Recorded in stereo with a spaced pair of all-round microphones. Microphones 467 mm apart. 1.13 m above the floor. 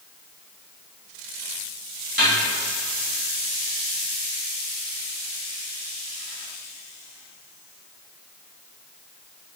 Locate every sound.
2.2 s a snare drum: 45° right (ahead or behind), 1.1 m